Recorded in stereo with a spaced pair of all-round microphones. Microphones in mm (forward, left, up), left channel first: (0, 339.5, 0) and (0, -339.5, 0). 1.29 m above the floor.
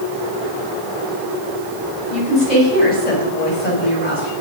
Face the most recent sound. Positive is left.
turn(degrees=85)